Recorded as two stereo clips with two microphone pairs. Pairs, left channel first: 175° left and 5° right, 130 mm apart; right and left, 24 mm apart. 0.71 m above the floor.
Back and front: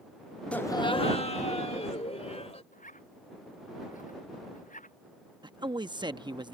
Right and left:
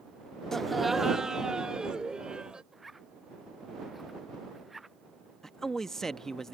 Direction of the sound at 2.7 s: 175° left.